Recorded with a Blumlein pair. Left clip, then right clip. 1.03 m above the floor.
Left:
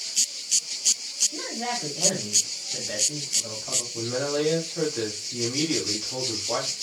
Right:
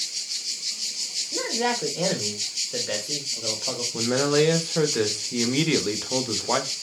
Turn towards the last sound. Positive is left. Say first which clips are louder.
# right 7 dB
turn(degrees=-45)